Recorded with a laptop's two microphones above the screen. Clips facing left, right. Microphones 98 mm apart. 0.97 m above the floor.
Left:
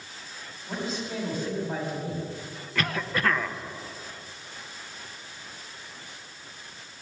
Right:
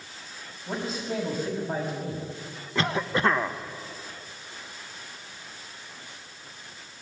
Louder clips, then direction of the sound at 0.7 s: Right 2 dB; 45° right (ahead or behind).